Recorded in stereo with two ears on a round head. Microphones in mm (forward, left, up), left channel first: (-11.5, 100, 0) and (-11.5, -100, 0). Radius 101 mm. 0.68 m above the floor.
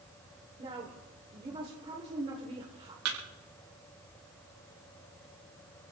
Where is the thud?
80° right, 6.5 m.